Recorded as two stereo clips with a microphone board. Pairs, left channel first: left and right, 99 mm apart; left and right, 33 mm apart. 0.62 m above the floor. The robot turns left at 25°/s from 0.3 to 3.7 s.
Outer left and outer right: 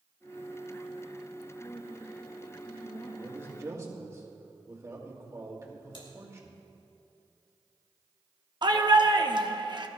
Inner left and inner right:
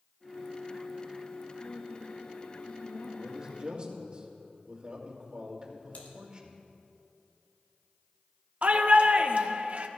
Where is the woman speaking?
100° left, 1.5 m; by 4.1 s 50° left, 1.5 m.